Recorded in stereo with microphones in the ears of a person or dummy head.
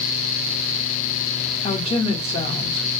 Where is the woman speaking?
30° left (ahead or behind), 0.9 m.